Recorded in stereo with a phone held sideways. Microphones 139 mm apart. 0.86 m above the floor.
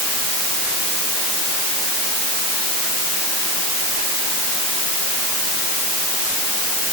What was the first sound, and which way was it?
Only background noise.